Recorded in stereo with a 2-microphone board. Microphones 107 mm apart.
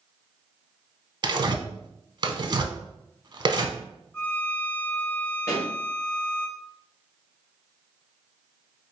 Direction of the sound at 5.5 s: 25° left (ahead or behind).